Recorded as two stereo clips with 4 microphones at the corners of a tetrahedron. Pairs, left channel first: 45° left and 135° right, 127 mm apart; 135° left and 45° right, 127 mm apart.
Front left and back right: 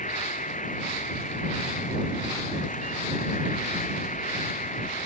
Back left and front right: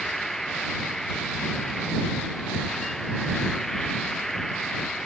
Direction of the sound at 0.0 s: 50° left.